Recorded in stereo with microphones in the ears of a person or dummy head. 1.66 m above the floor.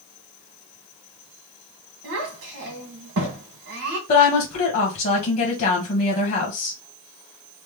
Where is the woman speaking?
45° left (ahead or behind), 1.0 m.